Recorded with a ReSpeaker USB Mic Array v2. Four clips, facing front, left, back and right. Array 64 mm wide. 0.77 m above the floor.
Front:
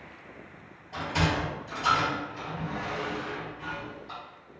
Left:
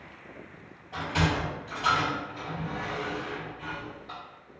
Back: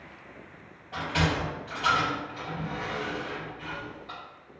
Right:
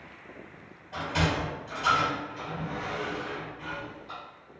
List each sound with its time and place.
0.9 s a sliding door: 175° left, 1.9 m